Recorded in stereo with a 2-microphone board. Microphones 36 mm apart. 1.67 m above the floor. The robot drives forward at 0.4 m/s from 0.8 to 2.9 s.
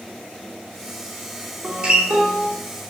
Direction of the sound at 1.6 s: 30° right (ahead or behind).